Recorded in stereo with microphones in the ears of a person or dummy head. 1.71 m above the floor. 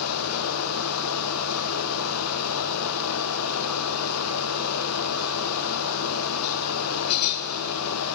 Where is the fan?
85° left, 0.7 m.